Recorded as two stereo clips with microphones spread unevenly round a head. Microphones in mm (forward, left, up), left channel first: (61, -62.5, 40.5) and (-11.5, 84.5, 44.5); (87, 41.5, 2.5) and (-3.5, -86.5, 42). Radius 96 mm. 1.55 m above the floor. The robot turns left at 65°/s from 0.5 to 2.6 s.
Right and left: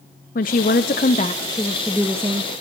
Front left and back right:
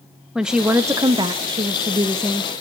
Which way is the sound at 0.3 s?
60° right.